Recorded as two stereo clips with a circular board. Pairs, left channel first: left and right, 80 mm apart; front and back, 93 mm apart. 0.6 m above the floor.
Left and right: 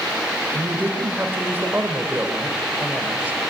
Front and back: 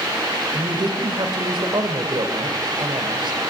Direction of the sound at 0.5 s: 155° right.